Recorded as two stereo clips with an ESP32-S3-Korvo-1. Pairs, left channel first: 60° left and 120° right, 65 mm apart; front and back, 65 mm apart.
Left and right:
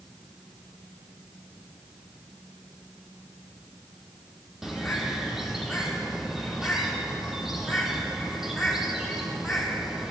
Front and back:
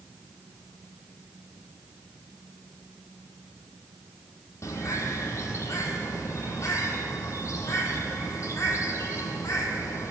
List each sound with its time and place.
4.6 s a bird: 35° right, 1.3 m